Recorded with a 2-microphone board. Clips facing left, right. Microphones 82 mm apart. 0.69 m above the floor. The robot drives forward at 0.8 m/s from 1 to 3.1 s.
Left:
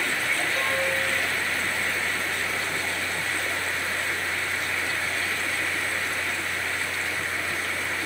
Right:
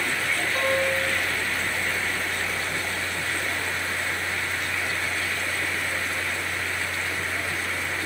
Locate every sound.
0.6 s a piano: 50° right (ahead or behind), 1.4 m; by 1.1 s 55° right (ahead or behind), 1.3 m